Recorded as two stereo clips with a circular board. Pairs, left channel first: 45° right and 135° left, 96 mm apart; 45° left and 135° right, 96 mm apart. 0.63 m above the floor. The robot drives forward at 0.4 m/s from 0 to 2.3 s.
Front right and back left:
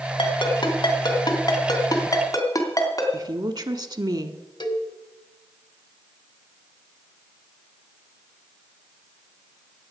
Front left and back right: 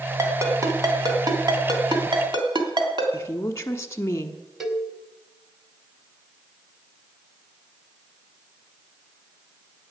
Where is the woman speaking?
105° left, 1.1 m.